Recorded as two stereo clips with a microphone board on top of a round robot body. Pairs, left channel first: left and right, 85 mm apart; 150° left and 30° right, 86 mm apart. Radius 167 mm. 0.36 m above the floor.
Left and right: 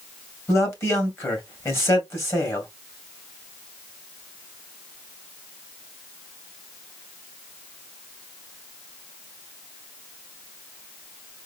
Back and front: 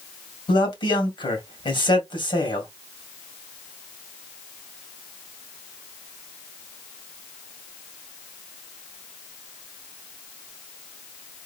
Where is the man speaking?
145° left, 2.5 m.